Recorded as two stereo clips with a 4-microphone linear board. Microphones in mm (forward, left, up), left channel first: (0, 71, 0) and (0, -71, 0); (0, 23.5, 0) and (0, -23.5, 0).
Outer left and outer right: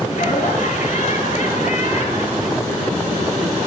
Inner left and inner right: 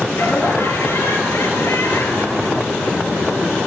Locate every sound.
0.1 s laughter: 65° left (ahead or behind), 6.5 m